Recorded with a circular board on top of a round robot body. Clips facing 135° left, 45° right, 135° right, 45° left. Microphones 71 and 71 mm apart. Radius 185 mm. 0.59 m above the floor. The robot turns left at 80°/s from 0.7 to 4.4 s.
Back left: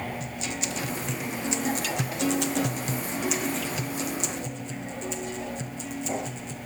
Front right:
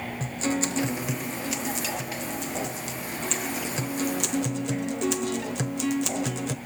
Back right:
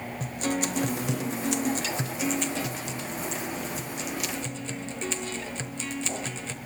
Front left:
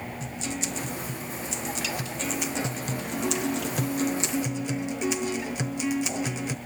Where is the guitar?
95° right, 1.1 m; by 6.5 s 30° right, 1.1 m.